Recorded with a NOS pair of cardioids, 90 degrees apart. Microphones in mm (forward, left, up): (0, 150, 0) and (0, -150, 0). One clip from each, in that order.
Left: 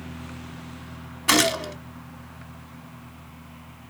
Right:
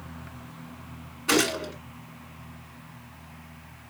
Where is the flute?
I don't hear a flute.